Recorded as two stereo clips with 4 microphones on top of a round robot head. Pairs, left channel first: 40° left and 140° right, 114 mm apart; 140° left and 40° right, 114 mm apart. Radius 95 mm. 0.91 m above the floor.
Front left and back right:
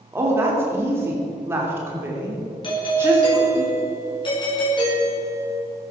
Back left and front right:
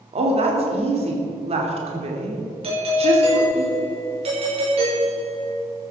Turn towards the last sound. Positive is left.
turn(degrees=-5)